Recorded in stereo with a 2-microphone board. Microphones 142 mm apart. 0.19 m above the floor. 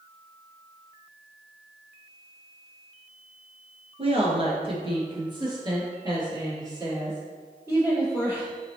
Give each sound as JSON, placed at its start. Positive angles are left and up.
{"t": 4.0, "sound": "a woman speaking", "side_deg": -45, "distance_m": 2.5}